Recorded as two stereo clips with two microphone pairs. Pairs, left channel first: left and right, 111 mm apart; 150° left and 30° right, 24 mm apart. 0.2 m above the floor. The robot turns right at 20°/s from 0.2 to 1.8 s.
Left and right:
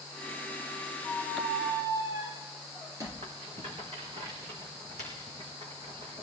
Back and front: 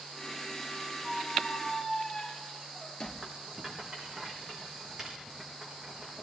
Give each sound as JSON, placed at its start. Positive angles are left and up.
{"t": 1.0, "sound": "a squeak", "azimuth_deg": -165, "distance_m": 2.5}
{"t": 3.2, "sound": "a rattle", "azimuth_deg": -110, "distance_m": 4.0}